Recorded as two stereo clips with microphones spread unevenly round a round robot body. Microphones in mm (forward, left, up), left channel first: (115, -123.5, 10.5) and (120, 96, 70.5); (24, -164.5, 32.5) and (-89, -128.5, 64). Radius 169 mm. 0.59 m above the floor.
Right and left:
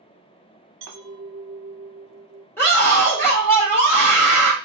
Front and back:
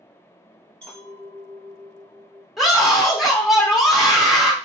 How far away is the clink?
About 0.9 m.